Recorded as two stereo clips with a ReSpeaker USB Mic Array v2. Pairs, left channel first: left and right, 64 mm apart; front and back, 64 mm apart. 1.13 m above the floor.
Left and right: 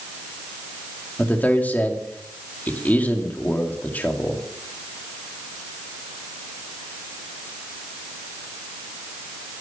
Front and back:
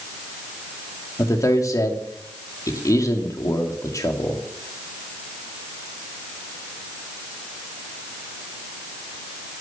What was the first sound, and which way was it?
A man speaking, 30° left.